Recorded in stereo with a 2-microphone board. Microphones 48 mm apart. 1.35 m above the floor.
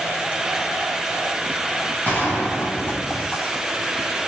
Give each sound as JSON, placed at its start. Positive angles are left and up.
{"t": 2.0, "sound": "a gunshot", "side_deg": 35, "distance_m": 6.5}